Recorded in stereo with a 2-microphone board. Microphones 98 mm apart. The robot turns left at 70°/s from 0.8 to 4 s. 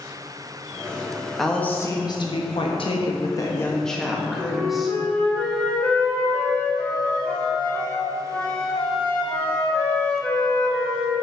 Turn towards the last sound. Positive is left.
turn(degrees=10)  # may be behind; listen again after turning